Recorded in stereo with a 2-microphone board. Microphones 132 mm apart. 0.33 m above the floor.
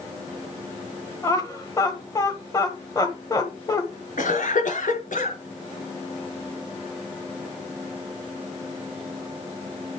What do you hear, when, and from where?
1.2 s laughter: 25° left (ahead or behind), 1.2 m
4.2 s a cough: 75° left (ahead or behind), 5 m